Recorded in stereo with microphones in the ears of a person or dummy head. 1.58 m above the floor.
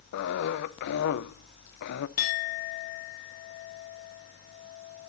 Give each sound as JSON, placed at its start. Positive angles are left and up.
{"t": 0.1, "sound": "a cough", "side_deg": 60, "distance_m": 1.0}
{"t": 2.2, "sound": "a clink", "side_deg": 50, "distance_m": 0.9}